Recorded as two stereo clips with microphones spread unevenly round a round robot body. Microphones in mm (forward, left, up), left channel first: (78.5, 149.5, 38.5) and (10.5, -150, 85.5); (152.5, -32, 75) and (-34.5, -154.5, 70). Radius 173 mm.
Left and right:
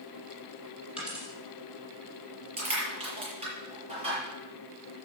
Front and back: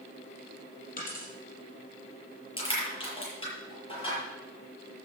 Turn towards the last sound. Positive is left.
turn(degrees=-30)